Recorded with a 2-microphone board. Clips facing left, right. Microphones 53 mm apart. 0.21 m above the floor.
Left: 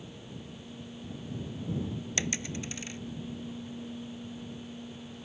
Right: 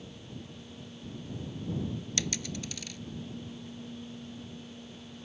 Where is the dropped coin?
30° left (ahead or behind).